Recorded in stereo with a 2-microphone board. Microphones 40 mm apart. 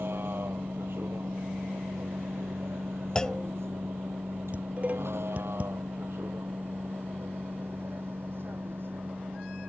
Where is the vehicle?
60° right (ahead or behind).